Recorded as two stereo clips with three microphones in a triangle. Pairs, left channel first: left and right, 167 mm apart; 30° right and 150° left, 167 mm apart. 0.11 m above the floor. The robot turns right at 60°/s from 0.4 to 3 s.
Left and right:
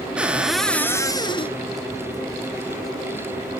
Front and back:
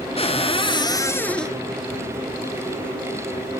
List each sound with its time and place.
0.2 s a cupboard door: 10° right, 1.0 m; by 1.6 s 60° left, 1.0 m